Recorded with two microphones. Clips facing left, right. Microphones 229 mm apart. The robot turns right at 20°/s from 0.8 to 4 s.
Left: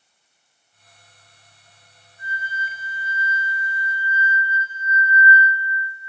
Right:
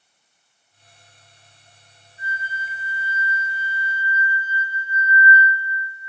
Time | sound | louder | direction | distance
2.2 | a flute | even | 175° right | 1.9 m